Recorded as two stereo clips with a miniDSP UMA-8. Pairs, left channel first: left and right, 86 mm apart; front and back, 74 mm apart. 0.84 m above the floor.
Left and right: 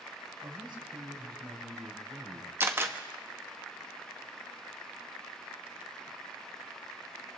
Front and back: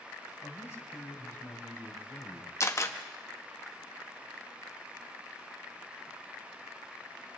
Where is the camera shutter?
35° right, 1.3 m.